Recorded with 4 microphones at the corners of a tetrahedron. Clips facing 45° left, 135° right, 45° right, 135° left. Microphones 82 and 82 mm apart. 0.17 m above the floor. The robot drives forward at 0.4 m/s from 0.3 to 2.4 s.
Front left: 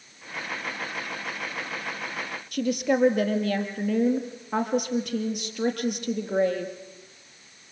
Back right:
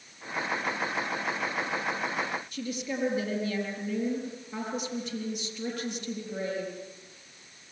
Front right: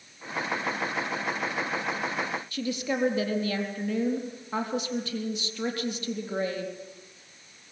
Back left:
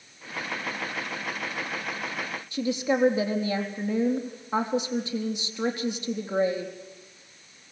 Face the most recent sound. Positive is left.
turn(degrees=65)